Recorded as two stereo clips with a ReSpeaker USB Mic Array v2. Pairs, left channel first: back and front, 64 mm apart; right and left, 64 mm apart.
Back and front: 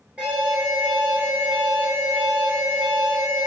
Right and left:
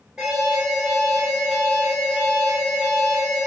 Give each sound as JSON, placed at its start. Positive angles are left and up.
{"t": 0.2, "sound": "an alarm", "azimuth_deg": 30, "distance_m": 0.9}